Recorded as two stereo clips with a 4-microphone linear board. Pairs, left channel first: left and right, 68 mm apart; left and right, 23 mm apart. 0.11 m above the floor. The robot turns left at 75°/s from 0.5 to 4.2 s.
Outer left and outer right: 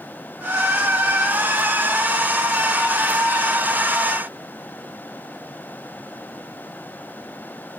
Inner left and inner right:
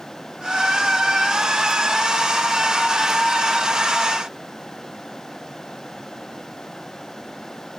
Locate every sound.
Only background noise.